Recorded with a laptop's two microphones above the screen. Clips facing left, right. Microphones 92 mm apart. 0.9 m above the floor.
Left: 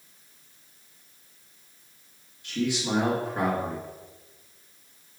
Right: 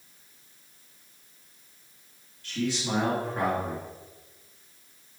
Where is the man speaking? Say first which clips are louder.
Left 2 dB; 20° left (ahead or behind), 1.4 m.